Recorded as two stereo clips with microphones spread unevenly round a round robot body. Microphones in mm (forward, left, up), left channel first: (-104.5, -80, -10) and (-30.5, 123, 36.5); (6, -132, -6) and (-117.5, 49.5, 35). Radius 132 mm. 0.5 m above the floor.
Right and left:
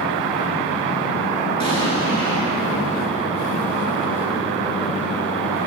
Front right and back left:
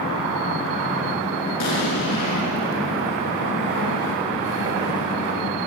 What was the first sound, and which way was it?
An explosion, 30° right.